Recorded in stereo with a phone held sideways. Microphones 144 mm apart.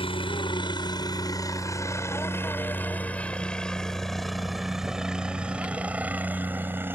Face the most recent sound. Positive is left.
turn(degrees=-15)  # may be behind; listen again after turning